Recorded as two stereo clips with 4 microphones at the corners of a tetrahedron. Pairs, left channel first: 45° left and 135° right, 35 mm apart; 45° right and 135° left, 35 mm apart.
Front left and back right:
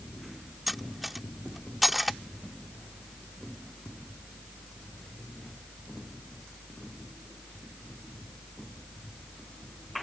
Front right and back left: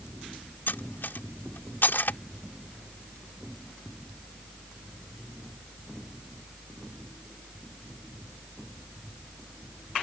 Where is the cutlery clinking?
50° right.